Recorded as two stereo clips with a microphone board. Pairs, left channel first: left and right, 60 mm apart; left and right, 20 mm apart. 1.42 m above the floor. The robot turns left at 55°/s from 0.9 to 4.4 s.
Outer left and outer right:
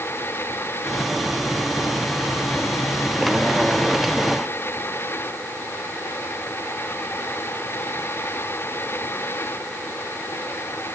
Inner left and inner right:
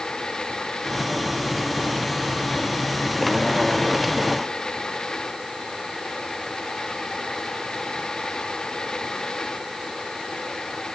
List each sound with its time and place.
Only background noise.